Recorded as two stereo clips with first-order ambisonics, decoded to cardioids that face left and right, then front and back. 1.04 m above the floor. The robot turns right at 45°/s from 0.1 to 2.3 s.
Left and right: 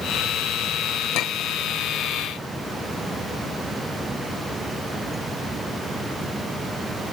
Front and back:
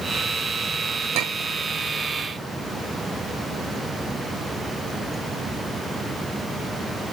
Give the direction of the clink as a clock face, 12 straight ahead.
8 o'clock.